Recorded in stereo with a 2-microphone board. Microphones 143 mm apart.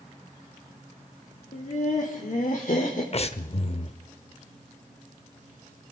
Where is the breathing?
45° left (ahead or behind), 0.6 m.